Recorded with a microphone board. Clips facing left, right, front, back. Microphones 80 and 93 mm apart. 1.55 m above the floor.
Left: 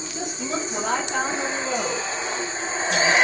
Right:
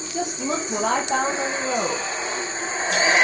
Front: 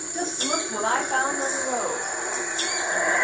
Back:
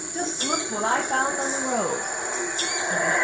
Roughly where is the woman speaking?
Right.